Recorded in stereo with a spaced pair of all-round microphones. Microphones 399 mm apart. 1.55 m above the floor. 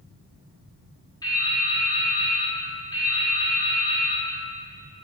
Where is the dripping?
10° left (ahead or behind), 2 m.